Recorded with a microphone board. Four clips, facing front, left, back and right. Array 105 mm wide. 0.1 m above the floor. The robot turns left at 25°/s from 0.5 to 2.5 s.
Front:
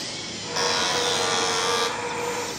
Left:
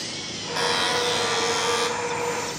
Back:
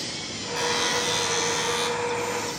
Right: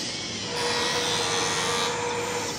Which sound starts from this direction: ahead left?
A buzzer, at 0.6 s.